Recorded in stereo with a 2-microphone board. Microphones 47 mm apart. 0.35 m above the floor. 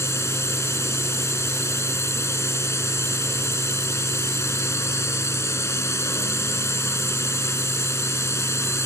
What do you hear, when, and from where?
0.0 s a drone: 70° left (ahead or behind)